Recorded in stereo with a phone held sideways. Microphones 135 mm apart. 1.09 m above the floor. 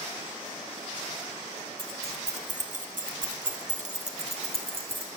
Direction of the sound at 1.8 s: 40° right (ahead or behind).